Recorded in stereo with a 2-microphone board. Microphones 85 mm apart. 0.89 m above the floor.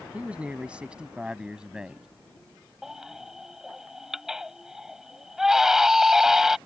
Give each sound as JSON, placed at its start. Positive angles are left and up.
{"t": 0.1, "sound": "a man speaking", "side_deg": -15}
{"t": 2.8, "sound": "a baby crying", "side_deg": -5}